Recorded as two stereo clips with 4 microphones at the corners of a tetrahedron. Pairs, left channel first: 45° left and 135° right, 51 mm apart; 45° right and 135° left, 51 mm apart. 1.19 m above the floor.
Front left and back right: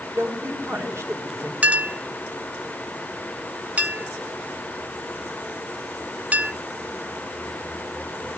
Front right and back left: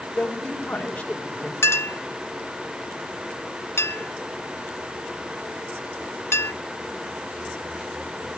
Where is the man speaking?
110° right, 5 m.